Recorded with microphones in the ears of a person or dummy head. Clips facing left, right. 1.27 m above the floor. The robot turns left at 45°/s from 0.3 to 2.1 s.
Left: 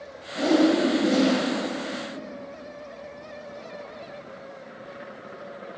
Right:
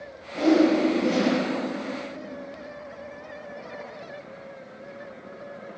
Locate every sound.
0.3 s a whoosh: 100° right, 0.9 m; by 1.4 s 145° right, 0.9 m